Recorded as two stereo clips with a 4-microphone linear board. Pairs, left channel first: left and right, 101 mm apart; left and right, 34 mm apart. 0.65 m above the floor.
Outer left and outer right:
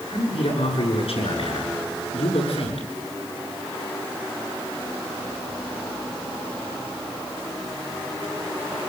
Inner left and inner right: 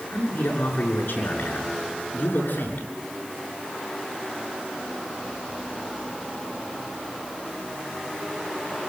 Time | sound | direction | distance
0.1 | a man speaking | 70° left (ahead or behind) | 7.5 m